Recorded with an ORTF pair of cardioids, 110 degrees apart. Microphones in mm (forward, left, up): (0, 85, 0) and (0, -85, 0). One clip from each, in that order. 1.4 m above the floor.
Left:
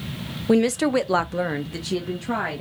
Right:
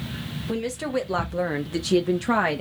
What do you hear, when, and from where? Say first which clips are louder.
0.5 s a woman speaking: left 8 dB; 50° left, 0.8 m; by 2.6 s 45° right, 1.0 m